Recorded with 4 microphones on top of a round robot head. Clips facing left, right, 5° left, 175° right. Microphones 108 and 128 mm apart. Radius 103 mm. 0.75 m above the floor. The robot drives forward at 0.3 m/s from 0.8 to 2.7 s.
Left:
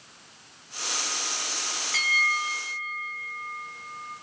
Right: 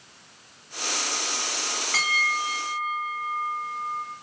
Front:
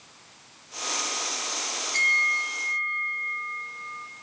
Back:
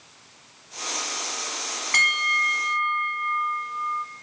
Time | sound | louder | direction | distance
1.9 | a bell | right 1 dB, back 5 dB | 145° right | 3 m